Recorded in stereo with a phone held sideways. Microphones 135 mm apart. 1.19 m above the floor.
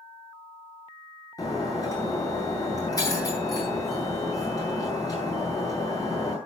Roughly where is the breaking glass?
Left.